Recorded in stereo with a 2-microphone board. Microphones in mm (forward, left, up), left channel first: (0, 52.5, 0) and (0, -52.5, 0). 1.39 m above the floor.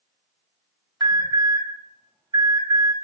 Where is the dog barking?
I don't hear a dog barking.